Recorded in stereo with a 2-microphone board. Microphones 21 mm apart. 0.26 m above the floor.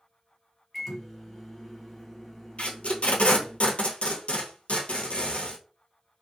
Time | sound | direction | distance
0.7 | a microwave | 15° left (ahead or behind) | 1.3 m
2.6 | tape being pulled | 85° left | 1.0 m